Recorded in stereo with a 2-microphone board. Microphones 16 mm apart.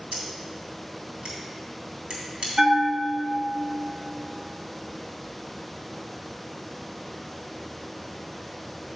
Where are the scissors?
70° right (ahead or behind), 2.5 m.